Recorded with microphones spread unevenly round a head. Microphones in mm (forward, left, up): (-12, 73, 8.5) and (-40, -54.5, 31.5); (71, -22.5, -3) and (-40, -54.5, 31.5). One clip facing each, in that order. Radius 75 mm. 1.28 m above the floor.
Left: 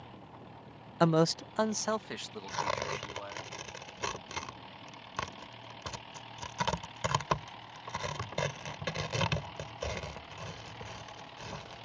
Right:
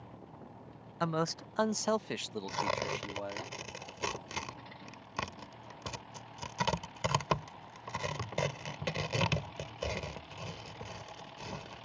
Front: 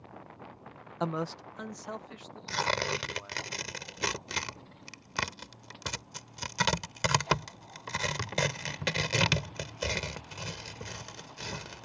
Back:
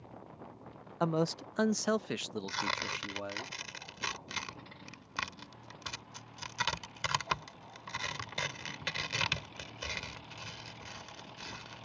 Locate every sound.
1.0 s a man speaking: 110° left; by 3.5 s 155° right
2.5 s tearing paper: 25° right